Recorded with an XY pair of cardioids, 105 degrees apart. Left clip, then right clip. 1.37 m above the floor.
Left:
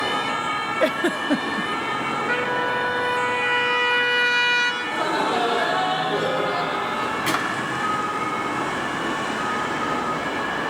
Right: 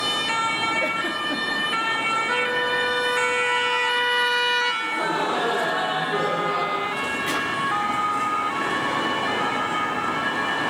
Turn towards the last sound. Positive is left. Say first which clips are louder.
# left 3 dB
turn(degrees=65)